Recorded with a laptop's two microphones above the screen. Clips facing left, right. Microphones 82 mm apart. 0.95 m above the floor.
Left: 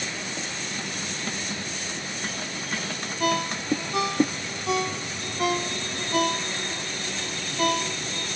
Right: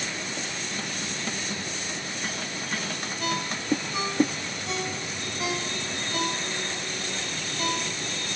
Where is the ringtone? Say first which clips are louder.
Left 6 dB; 55° left (ahead or behind), 0.6 m.